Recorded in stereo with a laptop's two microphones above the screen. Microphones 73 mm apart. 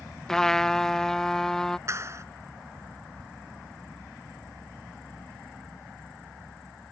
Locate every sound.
0.3 s a trumpet: 5° left (ahead or behind)
1.9 s a clap: 40° right (ahead or behind)